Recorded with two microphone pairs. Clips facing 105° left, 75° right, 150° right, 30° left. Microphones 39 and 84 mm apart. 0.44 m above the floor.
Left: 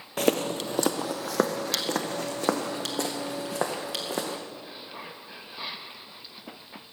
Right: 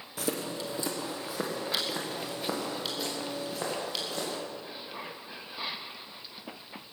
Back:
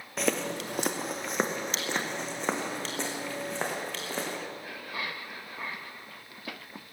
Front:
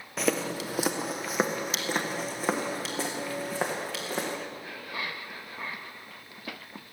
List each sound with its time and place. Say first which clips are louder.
0.2 s footsteps: left 8 dB, front 1 dB; 120° left, 0.7 m; by 4.4 s 115° left, 3 m